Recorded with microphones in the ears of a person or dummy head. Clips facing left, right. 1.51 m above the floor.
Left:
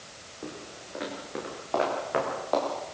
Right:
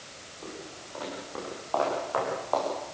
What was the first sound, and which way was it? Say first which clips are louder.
Footsteps: left 1 dB; 30° left (ahead or behind).